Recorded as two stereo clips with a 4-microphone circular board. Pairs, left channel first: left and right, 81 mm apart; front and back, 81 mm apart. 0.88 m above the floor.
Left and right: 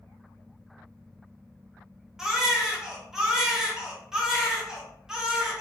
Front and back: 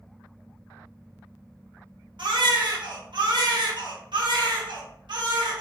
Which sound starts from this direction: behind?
A baby crying, at 2.2 s.